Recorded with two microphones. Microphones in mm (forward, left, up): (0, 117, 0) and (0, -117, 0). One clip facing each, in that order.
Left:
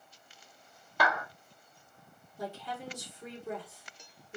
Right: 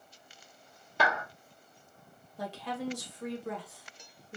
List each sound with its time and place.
1.0 s a clap: 25° right (ahead or behind), 1.2 m
2.4 s a woman speaking: 75° right (ahead or behind), 1.5 m